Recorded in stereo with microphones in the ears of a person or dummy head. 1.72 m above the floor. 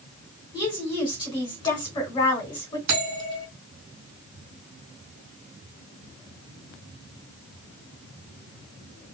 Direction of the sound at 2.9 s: 45° right (ahead or behind).